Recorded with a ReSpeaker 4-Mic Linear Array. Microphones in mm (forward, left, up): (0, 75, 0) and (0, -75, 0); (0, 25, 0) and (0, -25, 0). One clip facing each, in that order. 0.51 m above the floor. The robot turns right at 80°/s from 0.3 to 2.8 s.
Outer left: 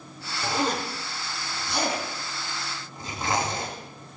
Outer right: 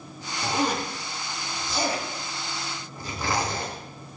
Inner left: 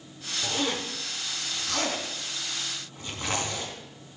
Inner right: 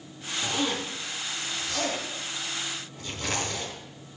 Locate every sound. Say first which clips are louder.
0.4 s a zipper: outer right 1 dB, inner right 1 dB; 35° right (ahead or behind), 4 m; by 3.7 s 25° left (ahead or behind), 4 m